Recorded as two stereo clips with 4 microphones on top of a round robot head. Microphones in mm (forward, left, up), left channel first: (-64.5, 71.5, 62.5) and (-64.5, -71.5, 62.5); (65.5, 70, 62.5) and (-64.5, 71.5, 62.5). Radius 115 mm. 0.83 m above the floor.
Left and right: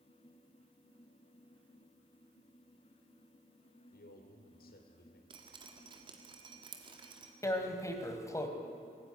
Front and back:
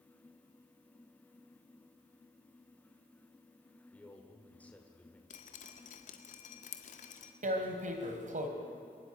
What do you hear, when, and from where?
3.9 s a man speaking: 80° left, 3 m
5.3 s dripping: 30° right, 1.6 m
7.4 s tearing paper: 160° left, 2.5 m